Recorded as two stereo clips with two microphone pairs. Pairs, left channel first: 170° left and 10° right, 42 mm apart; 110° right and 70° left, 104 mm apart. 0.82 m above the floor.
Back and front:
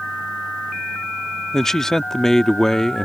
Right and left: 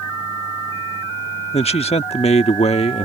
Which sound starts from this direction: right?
A man speaking, at 1.5 s.